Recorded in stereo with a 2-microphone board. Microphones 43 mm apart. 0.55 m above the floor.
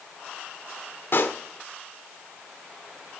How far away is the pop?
About 1.2 m.